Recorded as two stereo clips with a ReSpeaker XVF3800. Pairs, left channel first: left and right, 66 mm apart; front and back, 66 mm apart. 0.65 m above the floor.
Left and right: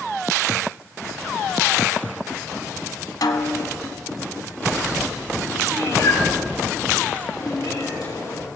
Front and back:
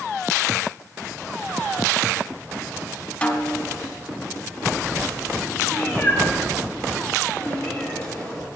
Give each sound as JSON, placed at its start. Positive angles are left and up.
{"t": 3.2, "sound": "a snare drum", "azimuth_deg": 70, "distance_m": 1.4}
{"t": 5.7, "sound": "a cat meowing", "azimuth_deg": 75, "distance_m": 6.5}